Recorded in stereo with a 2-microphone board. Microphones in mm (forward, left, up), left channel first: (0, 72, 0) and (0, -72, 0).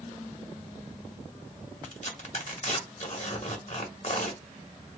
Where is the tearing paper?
55° left (ahead or behind), 1.5 m.